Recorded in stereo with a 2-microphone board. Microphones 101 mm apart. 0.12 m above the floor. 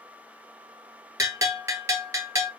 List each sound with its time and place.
1.2 s a bell: 30° right (ahead or behind), 0.7 m